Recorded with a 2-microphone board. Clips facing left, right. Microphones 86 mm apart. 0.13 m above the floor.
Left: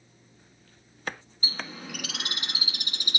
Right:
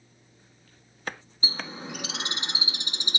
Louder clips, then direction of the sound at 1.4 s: Right 2 dB; 25° right (ahead or behind).